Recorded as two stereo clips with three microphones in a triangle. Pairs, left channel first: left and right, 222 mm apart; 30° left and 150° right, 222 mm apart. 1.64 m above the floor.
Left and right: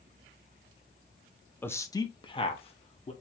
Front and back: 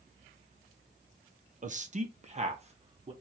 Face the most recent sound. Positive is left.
turn(degrees=150)